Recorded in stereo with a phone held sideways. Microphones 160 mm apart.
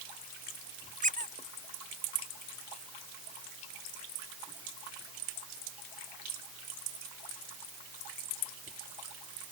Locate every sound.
1.0 s a squeak: 55° right (ahead or behind)